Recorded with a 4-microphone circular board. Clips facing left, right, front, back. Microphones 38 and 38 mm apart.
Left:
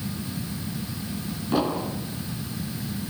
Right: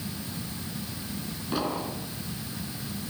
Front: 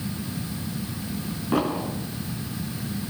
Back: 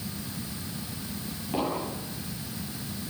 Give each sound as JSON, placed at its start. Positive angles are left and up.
{"t": 1.5, "sound": "an explosion", "azimuth_deg": 5, "distance_m": 6.0}